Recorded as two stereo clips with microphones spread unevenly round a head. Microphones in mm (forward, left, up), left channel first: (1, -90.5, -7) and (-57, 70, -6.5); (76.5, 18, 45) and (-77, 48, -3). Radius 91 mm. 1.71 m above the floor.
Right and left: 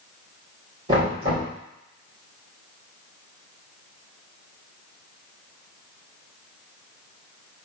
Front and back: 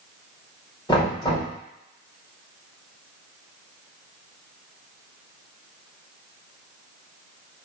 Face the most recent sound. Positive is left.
turn(degrees=50)